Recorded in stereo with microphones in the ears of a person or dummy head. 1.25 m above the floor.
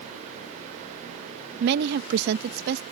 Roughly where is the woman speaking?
Right.